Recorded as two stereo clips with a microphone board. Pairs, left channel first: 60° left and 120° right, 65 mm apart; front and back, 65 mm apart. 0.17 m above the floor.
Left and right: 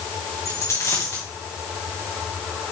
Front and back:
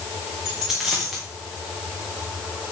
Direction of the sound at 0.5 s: 100° left.